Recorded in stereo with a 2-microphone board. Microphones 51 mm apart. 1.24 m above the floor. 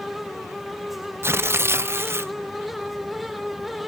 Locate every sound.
1.2 s tearing paper: 55° right (ahead or behind), 0.6 m